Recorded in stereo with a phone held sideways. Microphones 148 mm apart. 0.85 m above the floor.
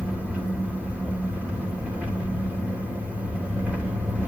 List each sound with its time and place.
0.0 s an engine running: 10° right (ahead or behind), 2.5 m